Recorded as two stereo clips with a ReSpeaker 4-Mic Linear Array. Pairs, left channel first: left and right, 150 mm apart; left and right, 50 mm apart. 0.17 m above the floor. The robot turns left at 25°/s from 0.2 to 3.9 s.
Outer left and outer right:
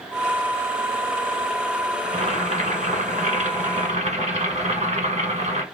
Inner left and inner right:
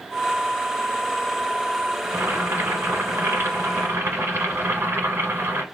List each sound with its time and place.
2.0 s boiling: 65° right, 1.4 m; by 5.6 s 110° right, 1.4 m